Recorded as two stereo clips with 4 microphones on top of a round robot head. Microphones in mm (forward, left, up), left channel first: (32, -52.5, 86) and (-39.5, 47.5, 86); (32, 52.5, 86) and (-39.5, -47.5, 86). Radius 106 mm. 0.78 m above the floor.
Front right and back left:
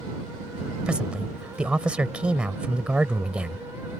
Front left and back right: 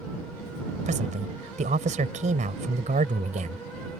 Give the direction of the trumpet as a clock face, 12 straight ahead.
No trumpet in this recording.